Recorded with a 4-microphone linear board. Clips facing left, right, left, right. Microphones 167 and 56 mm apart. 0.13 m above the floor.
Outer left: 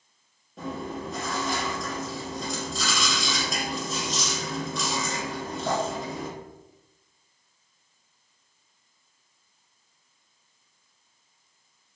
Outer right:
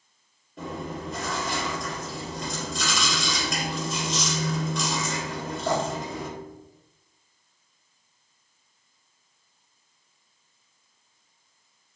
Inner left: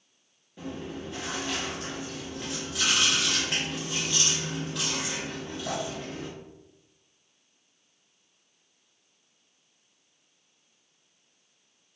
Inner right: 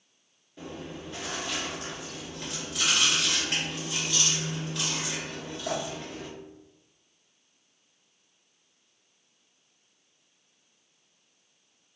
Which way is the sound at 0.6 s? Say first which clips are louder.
Outer left 1 dB, inner left 3 dB; centre (ahead or behind).